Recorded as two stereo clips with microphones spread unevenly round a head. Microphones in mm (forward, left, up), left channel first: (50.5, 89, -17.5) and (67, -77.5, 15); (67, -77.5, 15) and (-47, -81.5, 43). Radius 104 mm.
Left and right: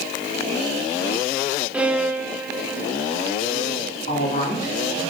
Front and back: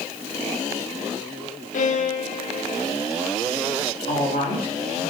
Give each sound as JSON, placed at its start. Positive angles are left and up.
{"t": 1.7, "sound": "a violin", "azimuth_deg": -5, "distance_m": 1.1}
{"t": 4.1, "sound": "a woman speaking", "azimuth_deg": 50, "distance_m": 6.0}